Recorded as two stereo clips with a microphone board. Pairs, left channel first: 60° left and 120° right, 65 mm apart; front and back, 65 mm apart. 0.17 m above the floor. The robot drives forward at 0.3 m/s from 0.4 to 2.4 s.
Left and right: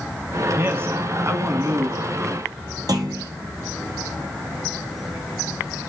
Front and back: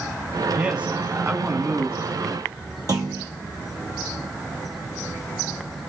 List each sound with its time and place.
0.6 s a man speaking: 115° right, 1.1 m; by 2.0 s 140° right, 1.3 m
2.9 s a clunk: 150° right, 2.5 m